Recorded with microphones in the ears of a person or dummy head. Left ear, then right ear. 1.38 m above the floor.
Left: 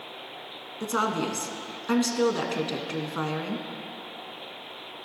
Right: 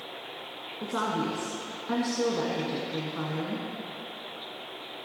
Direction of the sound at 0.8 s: 75° left (ahead or behind).